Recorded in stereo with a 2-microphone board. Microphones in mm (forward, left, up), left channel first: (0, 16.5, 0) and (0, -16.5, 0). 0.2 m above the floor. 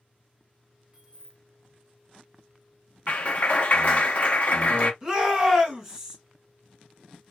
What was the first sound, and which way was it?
Keys jangling, 25° right (ahead or behind).